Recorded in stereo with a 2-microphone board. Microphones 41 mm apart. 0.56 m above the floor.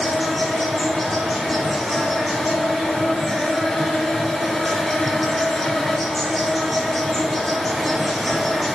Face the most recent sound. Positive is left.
turn(degrees=0)  # may be behind; listen again after turning